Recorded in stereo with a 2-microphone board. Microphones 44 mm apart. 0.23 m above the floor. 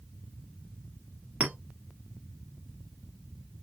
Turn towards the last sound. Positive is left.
turn(degrees=-25)  # may be behind; listen again after turning